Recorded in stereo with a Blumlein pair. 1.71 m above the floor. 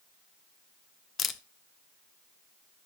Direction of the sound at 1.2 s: 20° left.